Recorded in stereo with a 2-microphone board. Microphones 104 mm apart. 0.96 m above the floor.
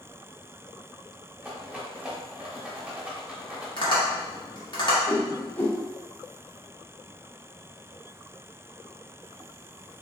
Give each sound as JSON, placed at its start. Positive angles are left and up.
{"t": 1.4, "sound": "a rattle", "side_deg": -10, "distance_m": 0.8}
{"t": 3.8, "sound": "tapping", "side_deg": 50, "distance_m": 1.0}
{"t": 5.1, "sound": "a whoosh", "side_deg": 20, "distance_m": 0.6}